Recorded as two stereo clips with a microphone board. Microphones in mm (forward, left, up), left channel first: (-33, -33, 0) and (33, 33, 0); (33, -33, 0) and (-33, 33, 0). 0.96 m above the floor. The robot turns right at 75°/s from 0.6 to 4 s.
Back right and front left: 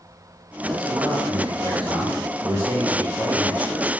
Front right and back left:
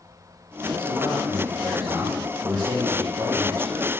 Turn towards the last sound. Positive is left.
turn(degrees=-150)